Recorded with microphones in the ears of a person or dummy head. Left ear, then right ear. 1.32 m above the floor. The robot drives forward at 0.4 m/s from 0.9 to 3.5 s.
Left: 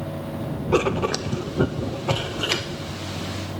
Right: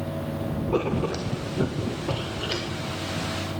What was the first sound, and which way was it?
Writing, 55° left (ahead or behind).